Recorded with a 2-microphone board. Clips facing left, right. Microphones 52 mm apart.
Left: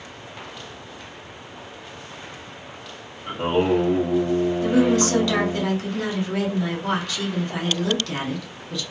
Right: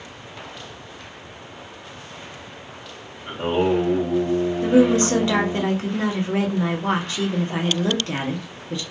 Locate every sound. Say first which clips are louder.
3.3 s singing: even; 20° left (ahead or behind), 1.0 m
4.6 s a woman speaking: right 4 dB; 30° right (ahead or behind), 0.7 m